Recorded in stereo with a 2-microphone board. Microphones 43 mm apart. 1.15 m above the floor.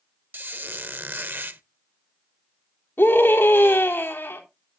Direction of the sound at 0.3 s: 45° right (ahead or behind).